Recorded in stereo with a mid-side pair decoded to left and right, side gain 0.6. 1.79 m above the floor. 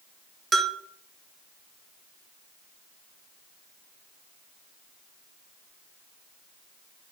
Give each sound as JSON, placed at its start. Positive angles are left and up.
{"t": 0.5, "sound": "a bell", "azimuth_deg": -30, "distance_m": 0.6}